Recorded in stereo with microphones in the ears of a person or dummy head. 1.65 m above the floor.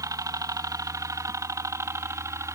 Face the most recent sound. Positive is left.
turn(degrees=-10)  # may be behind; listen again after turning